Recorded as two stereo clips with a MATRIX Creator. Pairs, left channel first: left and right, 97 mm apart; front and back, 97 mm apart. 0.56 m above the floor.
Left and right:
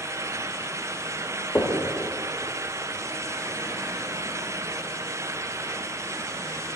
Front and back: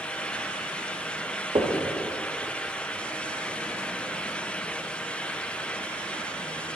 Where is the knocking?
160° left, 0.9 m.